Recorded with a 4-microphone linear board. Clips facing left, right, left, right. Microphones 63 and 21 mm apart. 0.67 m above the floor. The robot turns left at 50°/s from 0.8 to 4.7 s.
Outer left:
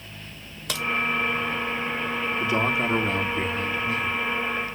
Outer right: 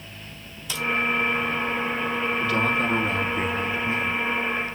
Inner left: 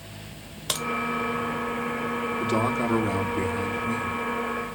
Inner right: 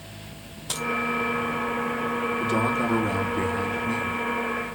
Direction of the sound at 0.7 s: 60° left (ahead or behind).